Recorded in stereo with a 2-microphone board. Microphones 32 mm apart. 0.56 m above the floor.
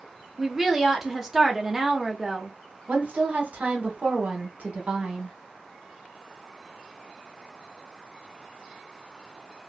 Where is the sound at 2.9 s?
55° right (ahead or behind), 1.2 m.